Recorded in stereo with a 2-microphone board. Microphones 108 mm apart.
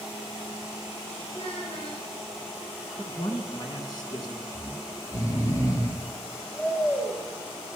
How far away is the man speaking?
About 2.5 m.